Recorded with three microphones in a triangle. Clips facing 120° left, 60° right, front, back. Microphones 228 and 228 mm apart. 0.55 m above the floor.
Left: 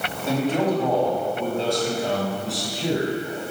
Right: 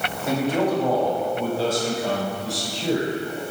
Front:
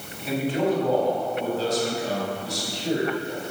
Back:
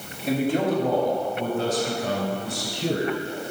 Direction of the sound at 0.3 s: 135° right.